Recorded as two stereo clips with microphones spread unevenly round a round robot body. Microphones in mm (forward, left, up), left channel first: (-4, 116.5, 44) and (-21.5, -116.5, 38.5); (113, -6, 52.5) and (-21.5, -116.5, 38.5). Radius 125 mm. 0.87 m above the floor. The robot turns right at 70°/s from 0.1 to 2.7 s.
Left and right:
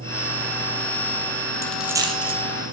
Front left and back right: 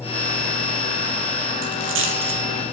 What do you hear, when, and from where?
1.6 s a dropped coin: 165° left, 3.5 m; by 2.4 s 145° right, 3.5 m